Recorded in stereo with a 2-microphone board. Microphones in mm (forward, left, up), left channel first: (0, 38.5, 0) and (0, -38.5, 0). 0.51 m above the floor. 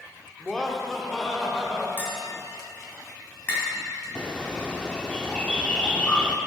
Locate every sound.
0.4 s laughter: 15° left (ahead or behind), 1.1 m; by 1.9 s centre (ahead or behind), 2 m
2.0 s tapping: 25° left (ahead or behind), 3.5 m
4.2 s a bird: 10° left (ahead or behind), 0.8 m